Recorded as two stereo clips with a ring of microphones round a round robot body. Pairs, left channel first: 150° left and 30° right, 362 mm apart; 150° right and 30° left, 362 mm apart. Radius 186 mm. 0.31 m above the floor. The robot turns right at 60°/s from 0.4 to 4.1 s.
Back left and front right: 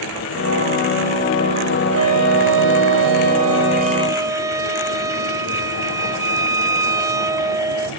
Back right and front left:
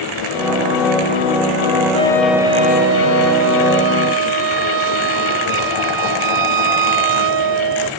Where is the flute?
80° right; by 7.9 s 50° left.